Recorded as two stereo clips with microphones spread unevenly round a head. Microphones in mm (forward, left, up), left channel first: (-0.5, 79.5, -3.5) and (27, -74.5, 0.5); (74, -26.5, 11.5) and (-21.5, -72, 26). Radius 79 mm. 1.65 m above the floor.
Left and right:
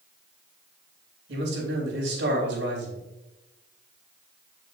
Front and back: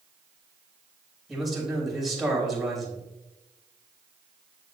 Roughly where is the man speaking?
Ahead right.